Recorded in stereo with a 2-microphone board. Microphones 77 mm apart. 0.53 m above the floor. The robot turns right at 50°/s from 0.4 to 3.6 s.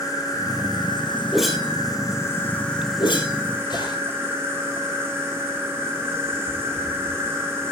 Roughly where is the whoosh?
Centre.